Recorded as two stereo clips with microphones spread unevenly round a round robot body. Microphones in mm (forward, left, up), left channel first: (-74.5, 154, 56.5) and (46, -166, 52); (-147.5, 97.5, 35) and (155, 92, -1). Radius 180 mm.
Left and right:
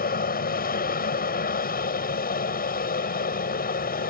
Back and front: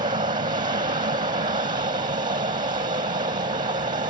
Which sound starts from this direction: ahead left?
An aircraft, at 0.0 s.